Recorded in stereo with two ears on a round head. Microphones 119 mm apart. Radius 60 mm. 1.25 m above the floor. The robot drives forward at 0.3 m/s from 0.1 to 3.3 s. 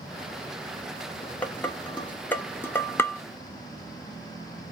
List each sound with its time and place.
1.4 s dishes clattering: 10° left (ahead or behind), 0.7 m; by 3.2 s 15° left (ahead or behind), 0.5 m